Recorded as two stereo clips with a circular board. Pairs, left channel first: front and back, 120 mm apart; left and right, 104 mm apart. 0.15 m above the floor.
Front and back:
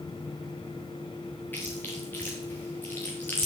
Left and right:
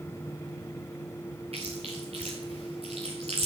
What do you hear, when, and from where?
1.5 s chewing: 75° right, 3.5 m